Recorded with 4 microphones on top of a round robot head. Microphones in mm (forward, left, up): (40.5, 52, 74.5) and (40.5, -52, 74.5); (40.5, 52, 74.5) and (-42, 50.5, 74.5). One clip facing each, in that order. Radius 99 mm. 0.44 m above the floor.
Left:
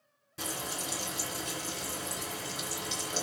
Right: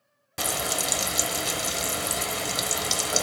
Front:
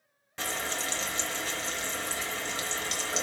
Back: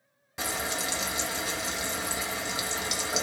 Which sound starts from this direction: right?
Frying, at 0.4 s.